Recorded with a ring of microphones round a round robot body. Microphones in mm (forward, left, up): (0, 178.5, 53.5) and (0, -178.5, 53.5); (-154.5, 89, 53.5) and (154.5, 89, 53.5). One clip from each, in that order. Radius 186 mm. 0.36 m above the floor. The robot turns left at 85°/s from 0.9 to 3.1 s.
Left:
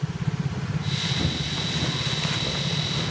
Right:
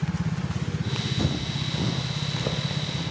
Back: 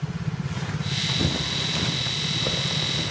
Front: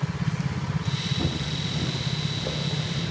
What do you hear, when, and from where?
1.2 s footsteps: 150° right, 0.7 m; by 3.1 s 170° left, 1.7 m